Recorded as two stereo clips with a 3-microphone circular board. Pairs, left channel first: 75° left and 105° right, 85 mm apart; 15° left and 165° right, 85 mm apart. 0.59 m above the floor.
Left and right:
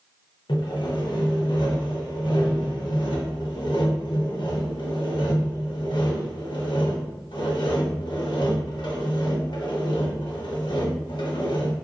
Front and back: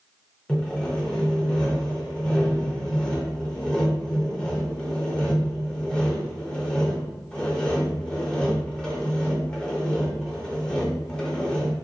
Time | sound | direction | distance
0.5 | sawing | 95° left | 0.7 m